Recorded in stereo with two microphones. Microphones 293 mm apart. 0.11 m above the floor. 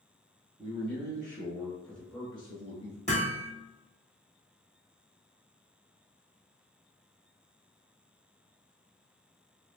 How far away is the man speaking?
About 1.6 m.